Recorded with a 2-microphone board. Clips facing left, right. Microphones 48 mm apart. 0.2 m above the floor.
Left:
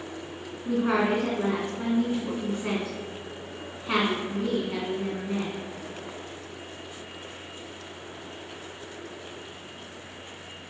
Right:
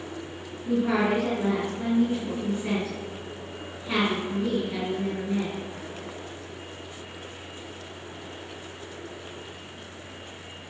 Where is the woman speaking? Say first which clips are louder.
Even; 50° left (ahead or behind), 2.5 m.